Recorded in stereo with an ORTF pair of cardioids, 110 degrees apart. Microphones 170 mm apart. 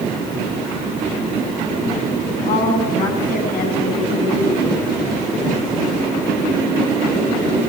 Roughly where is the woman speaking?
Ahead left.